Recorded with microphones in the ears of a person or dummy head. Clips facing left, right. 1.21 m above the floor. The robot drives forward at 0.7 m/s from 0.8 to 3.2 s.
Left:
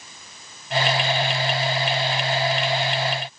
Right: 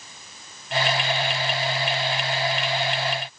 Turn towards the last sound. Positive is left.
No sound to turn to.